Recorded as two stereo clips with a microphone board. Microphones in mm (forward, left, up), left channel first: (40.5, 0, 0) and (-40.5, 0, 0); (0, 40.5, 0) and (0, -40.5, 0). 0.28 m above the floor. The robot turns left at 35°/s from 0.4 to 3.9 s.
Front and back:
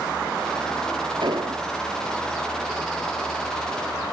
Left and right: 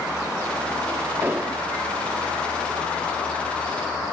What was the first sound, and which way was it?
An explosion, 155° right.